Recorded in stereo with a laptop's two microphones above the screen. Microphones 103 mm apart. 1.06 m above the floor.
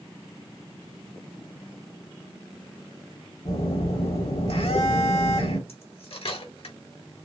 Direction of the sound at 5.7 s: 65° left (ahead or behind).